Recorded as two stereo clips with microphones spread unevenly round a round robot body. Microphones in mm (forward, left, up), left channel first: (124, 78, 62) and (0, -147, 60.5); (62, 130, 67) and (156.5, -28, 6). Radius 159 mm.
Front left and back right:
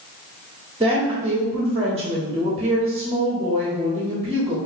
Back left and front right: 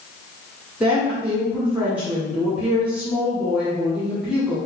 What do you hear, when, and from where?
0.8 s a woman speaking: 85° right, 1.3 m